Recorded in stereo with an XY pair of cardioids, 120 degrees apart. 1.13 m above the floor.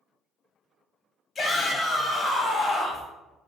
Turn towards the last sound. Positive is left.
turn(degrees=35)